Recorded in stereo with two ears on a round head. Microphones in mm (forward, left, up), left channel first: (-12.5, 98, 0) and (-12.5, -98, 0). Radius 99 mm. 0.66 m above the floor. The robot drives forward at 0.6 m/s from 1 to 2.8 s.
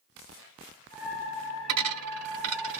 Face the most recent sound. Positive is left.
turn(degrees=-65)  # may be behind; listen again after turning